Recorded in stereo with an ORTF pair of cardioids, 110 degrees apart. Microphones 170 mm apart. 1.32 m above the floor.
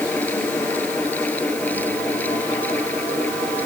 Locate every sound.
0.0 s a fan: 10° left